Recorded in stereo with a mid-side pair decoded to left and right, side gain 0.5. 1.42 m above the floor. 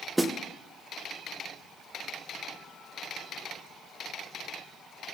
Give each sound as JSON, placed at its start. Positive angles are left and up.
{"t": 0.2, "sound": "a snare drum", "azimuth_deg": -5, "distance_m": 0.9}